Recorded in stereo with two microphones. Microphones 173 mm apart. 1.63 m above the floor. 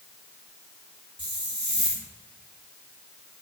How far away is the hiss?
About 2.5 m.